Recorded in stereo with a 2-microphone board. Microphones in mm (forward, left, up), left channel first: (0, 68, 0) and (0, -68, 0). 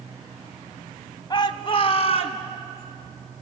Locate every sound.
1.3 s a shout: 35° left (ahead or behind), 1.7 m; by 2.4 s 50° left (ahead or behind), 2.5 m